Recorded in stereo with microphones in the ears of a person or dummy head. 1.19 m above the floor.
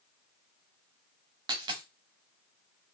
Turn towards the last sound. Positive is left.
turn(degrees=-25)  # may be behind; listen again after turning